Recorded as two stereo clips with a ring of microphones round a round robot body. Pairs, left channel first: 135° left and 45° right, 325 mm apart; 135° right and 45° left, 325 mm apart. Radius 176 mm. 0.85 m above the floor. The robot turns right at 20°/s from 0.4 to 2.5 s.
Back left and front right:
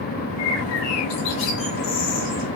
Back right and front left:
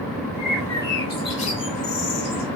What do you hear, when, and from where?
0.4 s a bird: 135° left, 6 m; by 2.5 s 175° left, 6 m